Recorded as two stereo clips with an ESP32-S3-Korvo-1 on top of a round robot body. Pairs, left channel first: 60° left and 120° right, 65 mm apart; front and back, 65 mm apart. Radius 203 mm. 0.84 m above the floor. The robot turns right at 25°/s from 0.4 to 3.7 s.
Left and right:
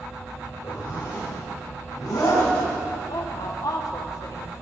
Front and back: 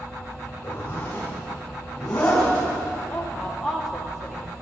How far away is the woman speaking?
About 2.5 m.